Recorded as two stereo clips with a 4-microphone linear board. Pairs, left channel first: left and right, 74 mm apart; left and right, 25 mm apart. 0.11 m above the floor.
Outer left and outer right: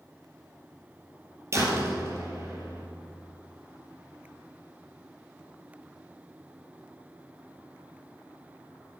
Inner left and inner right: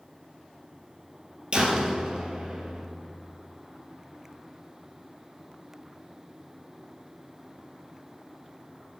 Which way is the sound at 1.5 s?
40° right (ahead or behind).